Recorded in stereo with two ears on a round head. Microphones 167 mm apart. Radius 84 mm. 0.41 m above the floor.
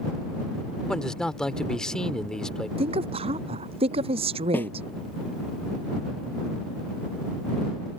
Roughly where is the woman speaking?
Right.